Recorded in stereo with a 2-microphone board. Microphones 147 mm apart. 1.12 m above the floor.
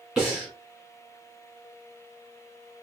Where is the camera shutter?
No camera shutter in this recording.